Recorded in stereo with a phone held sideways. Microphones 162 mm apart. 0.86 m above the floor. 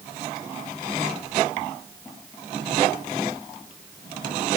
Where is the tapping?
No tapping in this recording.